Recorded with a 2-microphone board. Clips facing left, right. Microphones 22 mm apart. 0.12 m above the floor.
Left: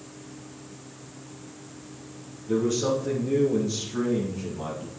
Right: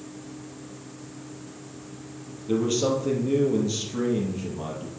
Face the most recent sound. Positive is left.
turn(degrees=-15)  # may be behind; listen again after turning